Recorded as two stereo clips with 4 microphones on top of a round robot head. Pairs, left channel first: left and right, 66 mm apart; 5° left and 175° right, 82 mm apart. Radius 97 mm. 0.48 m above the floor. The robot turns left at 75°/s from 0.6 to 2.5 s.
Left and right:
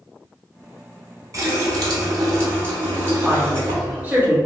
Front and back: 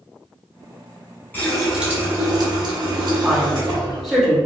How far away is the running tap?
About 1.3 m.